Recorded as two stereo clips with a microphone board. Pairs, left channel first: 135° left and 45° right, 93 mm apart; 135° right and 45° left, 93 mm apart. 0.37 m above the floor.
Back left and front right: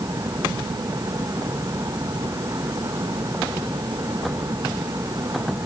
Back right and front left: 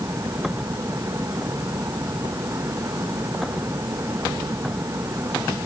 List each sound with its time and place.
Only background noise.